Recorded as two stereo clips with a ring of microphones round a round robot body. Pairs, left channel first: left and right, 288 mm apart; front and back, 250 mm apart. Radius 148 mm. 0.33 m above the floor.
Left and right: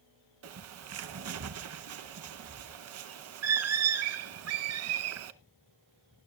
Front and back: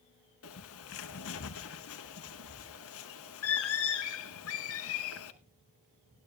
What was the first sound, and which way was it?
A bird, 45° right.